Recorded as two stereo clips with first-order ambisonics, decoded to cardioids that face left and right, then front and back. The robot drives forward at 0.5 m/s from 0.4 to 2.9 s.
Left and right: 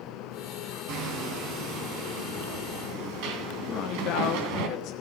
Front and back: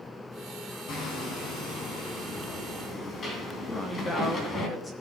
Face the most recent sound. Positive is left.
turn(degrees=70)